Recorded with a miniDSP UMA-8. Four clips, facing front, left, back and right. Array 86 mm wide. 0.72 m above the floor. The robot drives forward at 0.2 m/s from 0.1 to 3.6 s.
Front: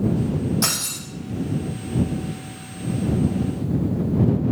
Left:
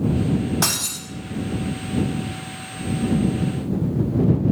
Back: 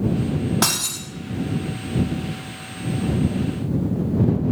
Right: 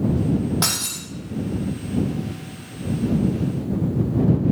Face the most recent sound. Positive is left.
turn(degrees=-165)